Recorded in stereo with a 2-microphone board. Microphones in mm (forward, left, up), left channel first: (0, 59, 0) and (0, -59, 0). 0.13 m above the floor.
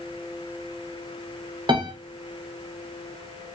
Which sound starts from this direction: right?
A piano, at 1.7 s.